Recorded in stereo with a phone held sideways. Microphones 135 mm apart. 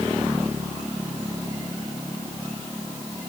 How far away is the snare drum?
I don't hear a snare drum.